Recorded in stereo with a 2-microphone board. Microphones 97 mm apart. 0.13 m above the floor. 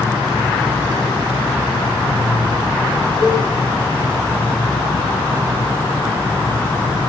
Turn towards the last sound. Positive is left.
turn(degrees=-65)  # may be behind; listen again after turning